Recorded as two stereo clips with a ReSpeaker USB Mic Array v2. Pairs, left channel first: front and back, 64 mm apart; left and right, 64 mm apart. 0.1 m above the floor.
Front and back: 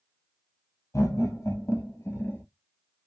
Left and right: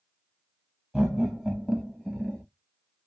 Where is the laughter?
20° right, 1.9 m; by 2.4 s 20° left, 1.3 m.